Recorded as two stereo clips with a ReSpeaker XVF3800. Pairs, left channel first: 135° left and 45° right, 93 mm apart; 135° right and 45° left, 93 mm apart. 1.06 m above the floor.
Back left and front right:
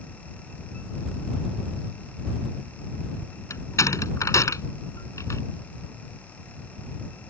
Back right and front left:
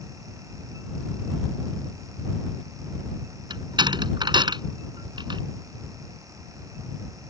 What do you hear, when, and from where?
3.5 s a door slam: 80° left